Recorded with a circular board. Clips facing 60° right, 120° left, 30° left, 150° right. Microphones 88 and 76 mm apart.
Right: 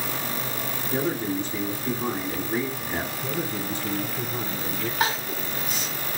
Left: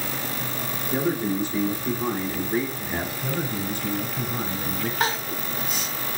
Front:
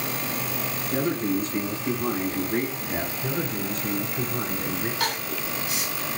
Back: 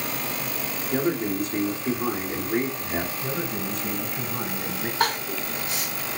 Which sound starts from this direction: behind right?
Crying, at 5.0 s.